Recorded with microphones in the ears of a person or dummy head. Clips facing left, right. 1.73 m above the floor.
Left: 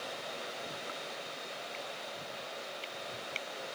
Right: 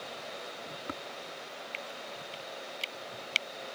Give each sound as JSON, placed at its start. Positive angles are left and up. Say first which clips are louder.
{"t": 0.9, "sound": "tapping", "louder": "right 4 dB", "side_deg": -50}